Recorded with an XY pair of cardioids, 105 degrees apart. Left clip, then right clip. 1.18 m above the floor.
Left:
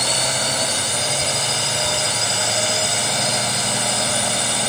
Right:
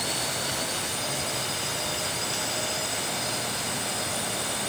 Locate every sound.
0.0 s a drone: 65° left